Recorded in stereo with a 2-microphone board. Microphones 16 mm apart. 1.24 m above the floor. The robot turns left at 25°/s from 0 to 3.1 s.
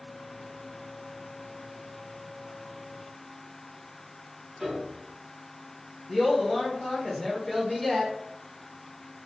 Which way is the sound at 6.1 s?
25° left (ahead or behind).